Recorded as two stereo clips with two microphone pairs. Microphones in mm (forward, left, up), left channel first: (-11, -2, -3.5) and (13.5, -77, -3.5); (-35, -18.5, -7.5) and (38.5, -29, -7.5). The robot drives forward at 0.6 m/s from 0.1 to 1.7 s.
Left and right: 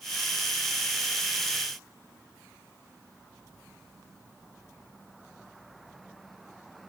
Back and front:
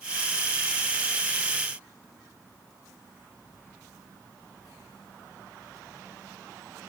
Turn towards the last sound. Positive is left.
No sound to turn to.